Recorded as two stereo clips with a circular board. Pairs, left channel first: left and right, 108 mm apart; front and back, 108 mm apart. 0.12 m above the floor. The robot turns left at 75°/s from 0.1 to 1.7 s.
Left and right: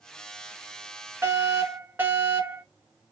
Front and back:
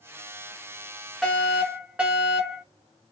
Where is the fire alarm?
85° right, 2 m; by 2.6 s 120° right, 2 m.